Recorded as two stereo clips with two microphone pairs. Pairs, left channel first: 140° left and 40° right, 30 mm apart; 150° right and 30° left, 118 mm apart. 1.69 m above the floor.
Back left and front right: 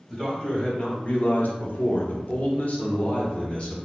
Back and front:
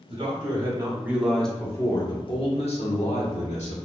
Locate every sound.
0.1 s a man speaking: 70° left, 1.3 m; by 3.8 s 165° right, 1.7 m